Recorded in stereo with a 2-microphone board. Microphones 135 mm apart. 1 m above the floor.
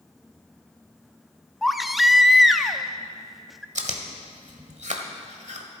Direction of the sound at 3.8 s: 65° right (ahead or behind).